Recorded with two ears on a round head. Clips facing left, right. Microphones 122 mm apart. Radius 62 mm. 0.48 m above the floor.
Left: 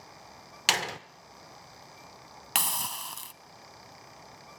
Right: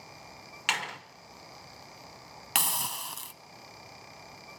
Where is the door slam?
45° left (ahead or behind), 0.9 m.